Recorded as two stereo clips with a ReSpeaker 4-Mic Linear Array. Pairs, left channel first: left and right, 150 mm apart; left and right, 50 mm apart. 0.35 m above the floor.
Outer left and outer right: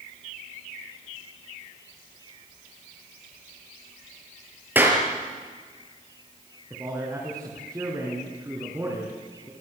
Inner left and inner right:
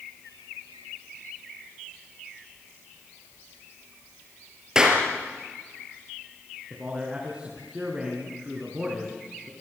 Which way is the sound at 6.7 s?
20° right (ahead or behind).